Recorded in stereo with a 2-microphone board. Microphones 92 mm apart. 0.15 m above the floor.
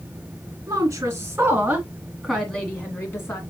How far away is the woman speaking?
About 1.9 m.